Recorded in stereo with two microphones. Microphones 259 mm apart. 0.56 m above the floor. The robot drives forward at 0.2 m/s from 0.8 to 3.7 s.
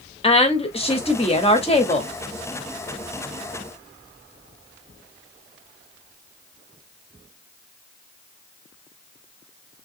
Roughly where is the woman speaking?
Left.